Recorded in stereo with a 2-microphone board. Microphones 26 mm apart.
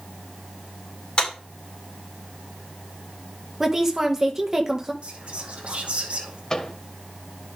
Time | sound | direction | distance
1.2 | a clap | 40° left (ahead or behind) | 5 m
3.6 | a woman speaking | 20° right (ahead or behind) | 1.9 m
5.0 | whispering | 55° right (ahead or behind) | 2 m
6.5 | a microwave | 30° left (ahead or behind) | 1.8 m